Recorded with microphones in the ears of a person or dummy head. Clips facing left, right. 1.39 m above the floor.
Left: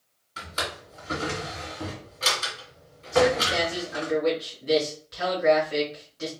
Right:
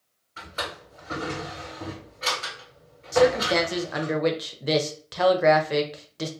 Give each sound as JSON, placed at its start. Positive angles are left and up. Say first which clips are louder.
{"t": 0.4, "sound": "a drawer", "louder": "left 1 dB", "side_deg": 60, "distance_m": 1.5}
{"t": 3.1, "sound": "a man speaking", "louder": "right 2 dB", "side_deg": -65, "distance_m": 0.5}